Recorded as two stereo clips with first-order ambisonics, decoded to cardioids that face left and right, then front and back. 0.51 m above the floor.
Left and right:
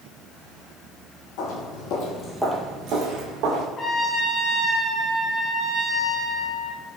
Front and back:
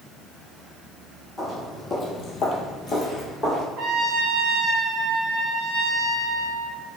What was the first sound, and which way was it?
Footsteps, 85° left.